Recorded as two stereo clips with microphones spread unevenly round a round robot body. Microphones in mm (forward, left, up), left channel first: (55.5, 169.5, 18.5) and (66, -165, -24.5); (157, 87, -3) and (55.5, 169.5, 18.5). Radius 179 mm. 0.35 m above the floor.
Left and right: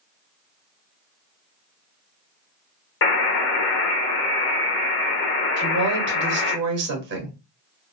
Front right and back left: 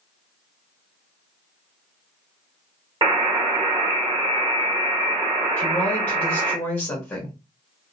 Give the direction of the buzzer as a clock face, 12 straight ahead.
8 o'clock.